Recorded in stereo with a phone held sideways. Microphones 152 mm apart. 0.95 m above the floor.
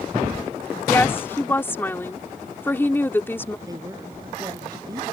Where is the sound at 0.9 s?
15° left (ahead or behind).